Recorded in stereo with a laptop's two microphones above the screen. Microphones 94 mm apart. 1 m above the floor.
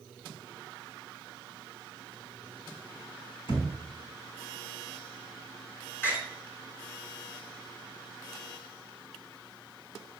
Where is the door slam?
25° left (ahead or behind), 2.5 m.